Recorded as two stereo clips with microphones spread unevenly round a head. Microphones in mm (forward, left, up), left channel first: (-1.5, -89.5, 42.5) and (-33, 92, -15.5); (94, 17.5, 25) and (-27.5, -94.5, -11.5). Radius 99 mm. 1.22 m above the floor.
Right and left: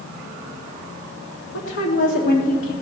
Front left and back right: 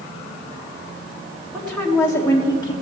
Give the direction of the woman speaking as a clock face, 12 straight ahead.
2 o'clock.